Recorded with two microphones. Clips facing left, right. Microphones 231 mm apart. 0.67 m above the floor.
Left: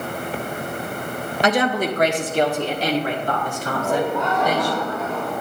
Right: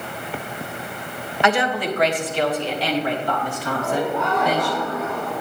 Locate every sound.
1.4 s a woman speaking: 40° left (ahead or behind), 1.0 m; by 4.7 s 45° left (ahead or behind), 3.5 m
3.7 s laughter: 75° left (ahead or behind), 4 m